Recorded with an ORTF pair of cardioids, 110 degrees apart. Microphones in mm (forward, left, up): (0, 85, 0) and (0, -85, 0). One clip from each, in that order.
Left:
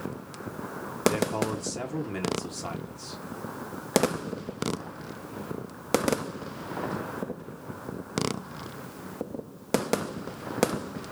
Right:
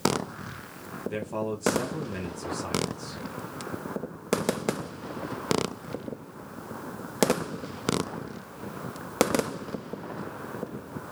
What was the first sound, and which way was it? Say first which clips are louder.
A man speaking: left 3 dB; 10° left.